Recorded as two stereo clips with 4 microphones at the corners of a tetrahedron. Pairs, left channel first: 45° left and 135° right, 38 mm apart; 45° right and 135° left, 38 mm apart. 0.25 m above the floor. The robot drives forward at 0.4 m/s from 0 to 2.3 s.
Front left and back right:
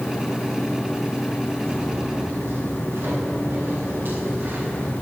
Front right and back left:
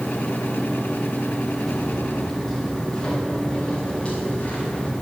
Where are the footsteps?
130° right, 3.5 m; by 5.0 s 100° right, 5.5 m.